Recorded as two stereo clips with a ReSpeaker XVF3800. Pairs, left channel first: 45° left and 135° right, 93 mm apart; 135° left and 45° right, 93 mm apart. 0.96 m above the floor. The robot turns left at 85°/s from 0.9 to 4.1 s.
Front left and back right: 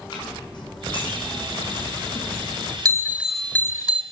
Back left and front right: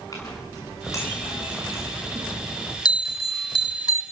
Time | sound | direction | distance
0.1 | a clink | 85° left | 6 m
2.9 | a bell | 175° left | 1.1 m